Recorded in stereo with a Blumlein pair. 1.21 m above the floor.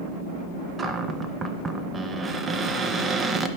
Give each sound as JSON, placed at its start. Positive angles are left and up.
{"t": 0.8, "sound": "a cupboard door", "azimuth_deg": -15, "distance_m": 0.7}